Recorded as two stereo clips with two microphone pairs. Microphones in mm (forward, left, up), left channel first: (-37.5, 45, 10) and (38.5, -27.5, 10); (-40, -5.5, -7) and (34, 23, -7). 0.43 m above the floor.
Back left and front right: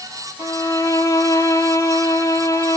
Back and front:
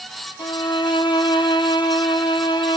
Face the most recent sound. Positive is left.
turn(degrees=-165)